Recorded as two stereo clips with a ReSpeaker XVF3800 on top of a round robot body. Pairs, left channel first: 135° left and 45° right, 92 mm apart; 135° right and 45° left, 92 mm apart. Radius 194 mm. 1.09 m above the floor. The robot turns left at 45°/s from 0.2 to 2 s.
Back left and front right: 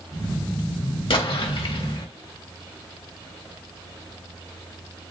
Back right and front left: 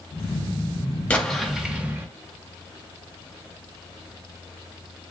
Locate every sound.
1.1 s an explosion: 150° left, 1.7 m; by 2.1 s 110° left, 1.7 m